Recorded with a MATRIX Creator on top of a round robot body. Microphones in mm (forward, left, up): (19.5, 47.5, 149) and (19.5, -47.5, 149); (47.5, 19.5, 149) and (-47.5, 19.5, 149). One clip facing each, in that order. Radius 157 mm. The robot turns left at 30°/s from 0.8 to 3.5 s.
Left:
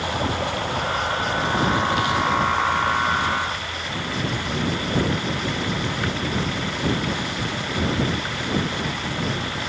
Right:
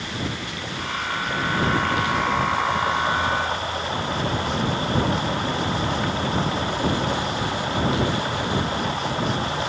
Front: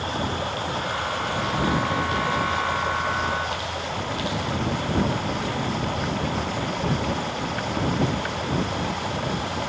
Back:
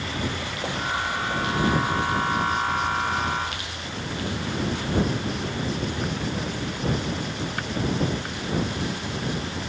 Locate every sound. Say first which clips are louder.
0.0 s running water: left 6 dB, front 3 dB; 50° left; by 9.7 s 30° right